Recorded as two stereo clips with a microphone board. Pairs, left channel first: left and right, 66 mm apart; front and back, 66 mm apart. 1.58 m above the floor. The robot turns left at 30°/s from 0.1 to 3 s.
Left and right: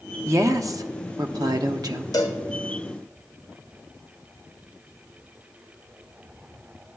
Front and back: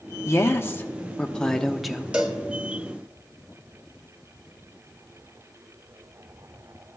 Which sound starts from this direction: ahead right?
A woman speaking, at 0.2 s.